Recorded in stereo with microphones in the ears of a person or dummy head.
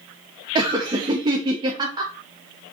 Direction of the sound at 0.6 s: 25° right (ahead or behind).